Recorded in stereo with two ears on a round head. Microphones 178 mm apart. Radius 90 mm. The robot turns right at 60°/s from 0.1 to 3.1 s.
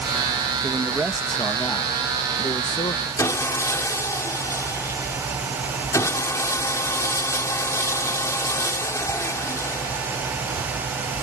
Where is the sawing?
15° left (ahead or behind).